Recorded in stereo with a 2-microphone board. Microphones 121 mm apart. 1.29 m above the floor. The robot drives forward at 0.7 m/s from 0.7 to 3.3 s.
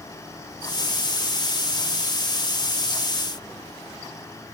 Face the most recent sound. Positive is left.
No sound to turn to.